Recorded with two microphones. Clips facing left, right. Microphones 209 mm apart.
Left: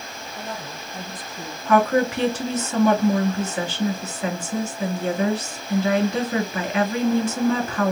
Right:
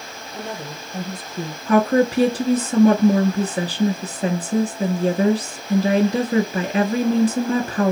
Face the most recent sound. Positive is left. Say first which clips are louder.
# right 2 dB
turn(degrees=-35)  # may be behind; listen again after turning